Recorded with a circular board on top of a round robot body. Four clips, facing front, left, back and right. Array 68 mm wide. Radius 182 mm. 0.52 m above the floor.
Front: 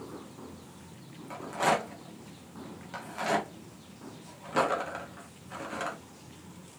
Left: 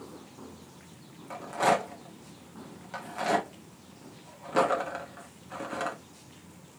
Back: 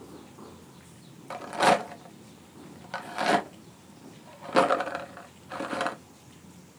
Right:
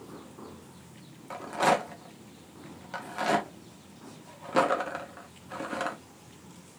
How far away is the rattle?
About 1.1 m.